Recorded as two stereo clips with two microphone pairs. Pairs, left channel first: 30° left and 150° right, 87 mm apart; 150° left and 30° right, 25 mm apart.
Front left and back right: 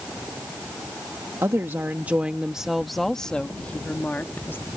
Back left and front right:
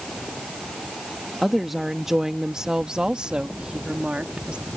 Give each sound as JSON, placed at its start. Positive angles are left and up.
{"t": 1.4, "sound": "a woman speaking", "azimuth_deg": -115}